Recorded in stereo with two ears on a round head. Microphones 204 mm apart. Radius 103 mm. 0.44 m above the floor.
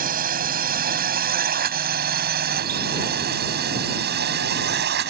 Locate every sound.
0.0 s a drone: 40° right (ahead or behind); by 5.1 s 50° right (ahead or behind)